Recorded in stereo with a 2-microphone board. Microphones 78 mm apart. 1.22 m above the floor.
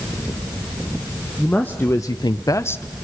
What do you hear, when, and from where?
1.4 s a man speaking: 20° left (ahead or behind), 1.5 m; by 2.9 s 25° left (ahead or behind), 0.9 m